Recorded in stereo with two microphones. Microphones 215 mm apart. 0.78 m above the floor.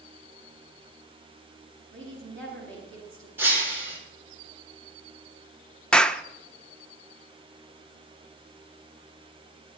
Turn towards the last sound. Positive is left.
turn(degrees=5)  # may be behind; listen again after turning